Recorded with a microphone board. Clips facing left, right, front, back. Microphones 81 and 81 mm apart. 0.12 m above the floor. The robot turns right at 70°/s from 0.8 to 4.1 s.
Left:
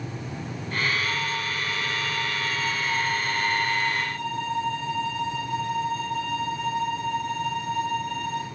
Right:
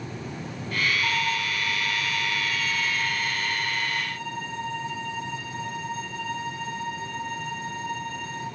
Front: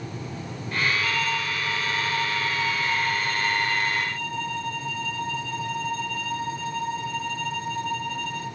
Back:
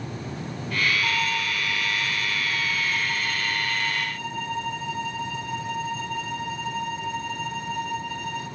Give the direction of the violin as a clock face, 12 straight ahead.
4 o'clock.